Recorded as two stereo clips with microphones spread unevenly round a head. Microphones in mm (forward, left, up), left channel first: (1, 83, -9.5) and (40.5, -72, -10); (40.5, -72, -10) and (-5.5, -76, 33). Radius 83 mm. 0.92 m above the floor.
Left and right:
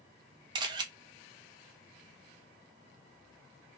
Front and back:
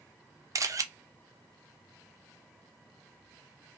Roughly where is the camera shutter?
Behind right.